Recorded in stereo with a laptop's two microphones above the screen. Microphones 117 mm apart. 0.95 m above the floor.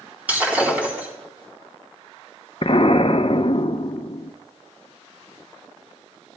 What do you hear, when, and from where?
0.3 s breaking glass: 15° right (ahead or behind), 3.5 m
2.6 s an explosion: 50° left (ahead or behind), 0.7 m